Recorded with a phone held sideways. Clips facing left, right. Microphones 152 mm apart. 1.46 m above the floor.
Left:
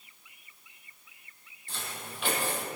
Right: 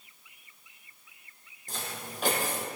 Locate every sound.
1.7 s footsteps: 40° right (ahead or behind), 2 m